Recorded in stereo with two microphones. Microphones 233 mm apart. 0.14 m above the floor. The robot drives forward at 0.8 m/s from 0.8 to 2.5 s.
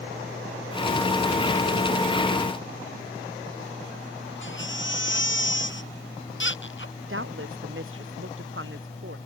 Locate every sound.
4.4 s a baby crying: 55° left (ahead or behind)
7.1 s a woman speaking: 60° right (ahead or behind)